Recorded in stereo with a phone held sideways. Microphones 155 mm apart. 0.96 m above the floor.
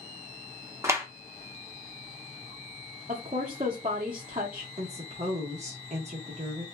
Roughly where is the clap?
Centre.